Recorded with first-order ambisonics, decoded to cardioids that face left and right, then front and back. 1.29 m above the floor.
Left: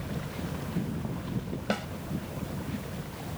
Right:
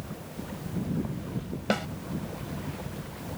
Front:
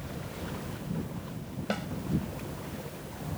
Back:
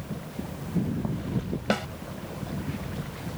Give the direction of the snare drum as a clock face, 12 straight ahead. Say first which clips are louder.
Right 3 dB, back 7 dB; 5 o'clock.